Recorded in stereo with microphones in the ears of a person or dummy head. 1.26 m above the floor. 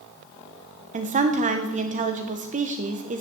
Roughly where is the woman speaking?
Right.